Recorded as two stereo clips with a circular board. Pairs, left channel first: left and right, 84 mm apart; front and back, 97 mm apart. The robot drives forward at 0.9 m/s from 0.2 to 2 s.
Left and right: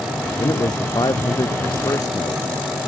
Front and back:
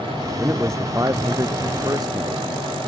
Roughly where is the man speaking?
Behind left.